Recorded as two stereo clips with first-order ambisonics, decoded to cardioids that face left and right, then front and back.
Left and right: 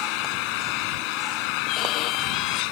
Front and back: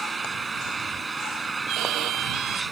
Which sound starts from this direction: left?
An engine running, at 0.0 s.